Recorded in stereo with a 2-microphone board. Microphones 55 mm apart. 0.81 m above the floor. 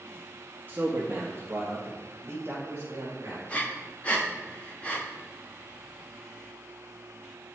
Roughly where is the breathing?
Left.